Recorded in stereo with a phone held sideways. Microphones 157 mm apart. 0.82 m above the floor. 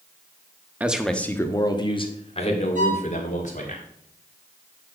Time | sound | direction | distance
0.8 | a man speaking | 10° right (ahead or behind) | 1.0 m
2.8 | a violin | 55° right (ahead or behind) | 3 m